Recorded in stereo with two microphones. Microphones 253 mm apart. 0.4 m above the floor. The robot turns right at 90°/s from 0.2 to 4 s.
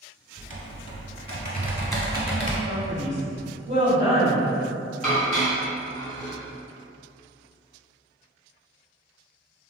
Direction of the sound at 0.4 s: 140° right.